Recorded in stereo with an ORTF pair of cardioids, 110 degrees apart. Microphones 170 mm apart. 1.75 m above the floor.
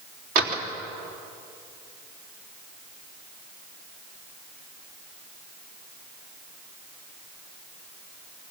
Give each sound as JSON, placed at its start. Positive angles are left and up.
{"t": 0.3, "sound": "a door slam", "azimuth_deg": -60, "distance_m": 3.5}